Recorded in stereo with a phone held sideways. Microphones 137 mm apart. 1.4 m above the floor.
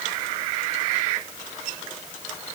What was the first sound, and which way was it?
Only background noise.